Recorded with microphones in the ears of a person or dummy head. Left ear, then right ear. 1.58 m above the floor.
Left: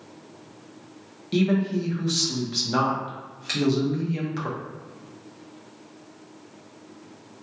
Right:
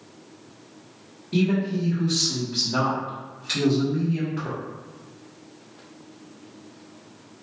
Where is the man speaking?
80° left, 0.9 m.